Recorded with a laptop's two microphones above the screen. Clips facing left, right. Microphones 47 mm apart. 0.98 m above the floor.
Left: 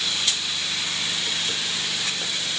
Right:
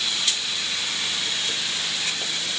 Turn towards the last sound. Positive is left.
No sound to turn to.